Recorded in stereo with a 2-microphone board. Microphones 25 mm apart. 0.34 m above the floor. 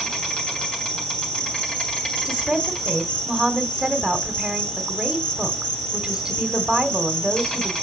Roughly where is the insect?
Left.